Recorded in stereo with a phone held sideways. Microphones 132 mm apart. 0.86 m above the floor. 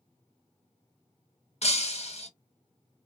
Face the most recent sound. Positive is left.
turn(degrees=60)  # may be behind; listen again after turning